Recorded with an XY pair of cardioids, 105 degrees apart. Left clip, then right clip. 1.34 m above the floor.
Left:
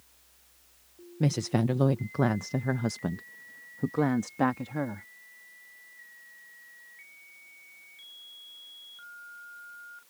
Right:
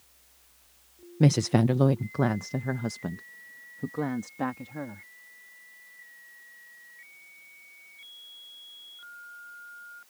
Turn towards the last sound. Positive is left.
turn(degrees=40)